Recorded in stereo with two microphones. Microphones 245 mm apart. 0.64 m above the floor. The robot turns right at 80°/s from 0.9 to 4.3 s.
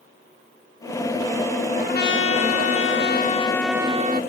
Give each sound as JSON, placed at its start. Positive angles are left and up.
{"t": 1.8, "sound": "a trumpet", "azimuth_deg": 25}